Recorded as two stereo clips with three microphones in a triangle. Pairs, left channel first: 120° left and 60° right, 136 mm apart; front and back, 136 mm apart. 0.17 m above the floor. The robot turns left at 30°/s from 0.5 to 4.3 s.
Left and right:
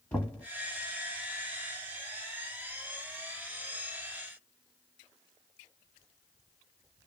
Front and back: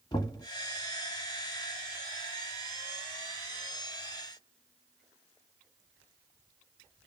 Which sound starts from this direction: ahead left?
Knocking, at 0.1 s.